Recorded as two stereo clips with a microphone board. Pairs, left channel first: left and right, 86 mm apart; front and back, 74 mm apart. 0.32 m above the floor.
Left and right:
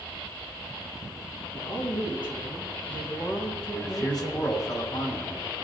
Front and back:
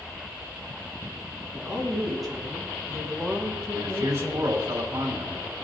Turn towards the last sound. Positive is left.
turn(degrees=130)